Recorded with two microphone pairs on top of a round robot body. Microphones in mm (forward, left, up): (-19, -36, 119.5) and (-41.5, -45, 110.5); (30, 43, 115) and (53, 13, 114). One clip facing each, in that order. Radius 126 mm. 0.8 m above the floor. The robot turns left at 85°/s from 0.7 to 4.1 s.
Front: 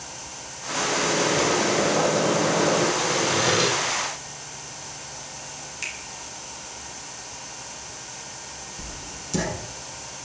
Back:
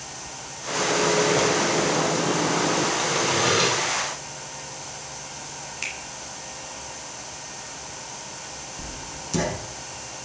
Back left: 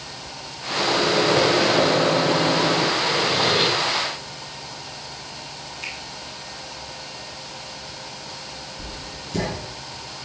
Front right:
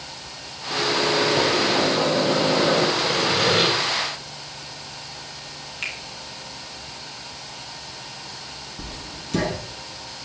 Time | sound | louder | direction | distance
0.7 | a microwave | back 2 dB, back left 1 dB | 175° right | 3.5 m
3.0 | sawing | even, even | 15° right | 5.5 m
5.8 | a finger snap | back 1 dB, front right 3 dB | 85° right | 5 m
8.8 | writing | back 1 dB, back left 1 dB | 80° right | 6 m